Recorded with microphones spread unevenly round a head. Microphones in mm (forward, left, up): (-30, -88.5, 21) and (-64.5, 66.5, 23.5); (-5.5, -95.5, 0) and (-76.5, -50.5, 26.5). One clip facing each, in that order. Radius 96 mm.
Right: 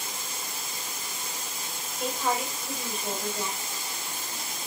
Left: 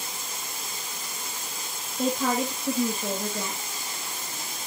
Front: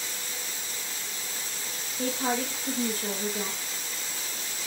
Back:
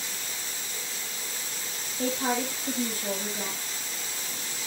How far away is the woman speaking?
About 2.5 m.